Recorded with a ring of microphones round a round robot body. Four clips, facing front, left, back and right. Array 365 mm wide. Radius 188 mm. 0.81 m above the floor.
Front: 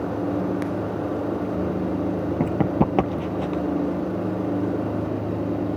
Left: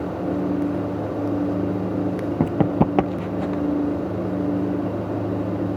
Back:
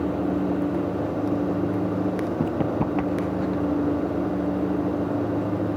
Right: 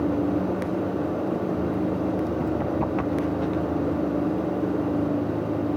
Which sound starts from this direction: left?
Running footsteps, at 2.4 s.